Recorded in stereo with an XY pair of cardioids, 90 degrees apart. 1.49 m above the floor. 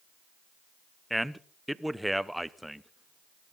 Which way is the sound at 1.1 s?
5° right.